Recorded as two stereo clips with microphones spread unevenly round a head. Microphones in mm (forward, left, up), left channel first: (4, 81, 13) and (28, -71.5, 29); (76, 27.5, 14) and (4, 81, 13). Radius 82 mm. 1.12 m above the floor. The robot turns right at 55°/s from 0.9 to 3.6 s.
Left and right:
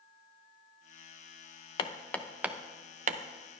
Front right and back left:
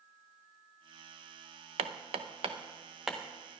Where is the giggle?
I don't hear a giggle.